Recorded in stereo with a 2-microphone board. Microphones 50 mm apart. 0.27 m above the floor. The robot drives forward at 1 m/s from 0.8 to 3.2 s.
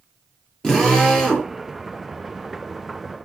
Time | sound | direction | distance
0.6 | a drill | 15° left (ahead or behind) | 5 m